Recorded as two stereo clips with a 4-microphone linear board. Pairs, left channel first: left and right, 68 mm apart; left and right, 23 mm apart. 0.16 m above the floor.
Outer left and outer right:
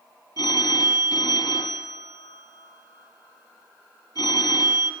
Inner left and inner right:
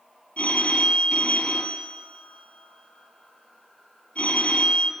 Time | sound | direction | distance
0.4 | a phone ringing | 60° left (ahead or behind) | 2.5 m